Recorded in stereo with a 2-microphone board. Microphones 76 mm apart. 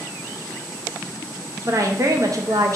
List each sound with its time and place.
1.6 s a woman speaking: 45° right (ahead or behind), 0.6 m